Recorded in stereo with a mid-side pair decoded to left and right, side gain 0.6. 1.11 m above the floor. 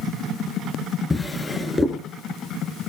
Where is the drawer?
15° left, 5 m.